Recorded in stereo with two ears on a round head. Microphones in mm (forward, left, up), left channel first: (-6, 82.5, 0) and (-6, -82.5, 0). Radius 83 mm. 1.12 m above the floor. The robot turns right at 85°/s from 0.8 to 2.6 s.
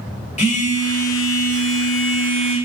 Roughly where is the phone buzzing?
Ahead left.